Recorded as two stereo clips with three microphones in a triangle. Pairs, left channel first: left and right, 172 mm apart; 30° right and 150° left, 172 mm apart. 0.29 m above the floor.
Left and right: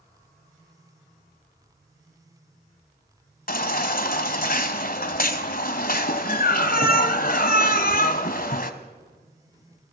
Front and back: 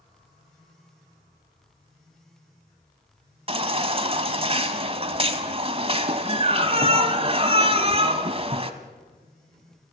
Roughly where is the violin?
I don't hear a violin.